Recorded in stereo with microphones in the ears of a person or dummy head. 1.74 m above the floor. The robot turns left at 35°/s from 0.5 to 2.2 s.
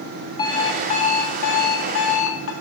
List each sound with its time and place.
0.4 s an alarm clock: 155° left, 2.5 m; by 2.5 s 95° left, 2.5 m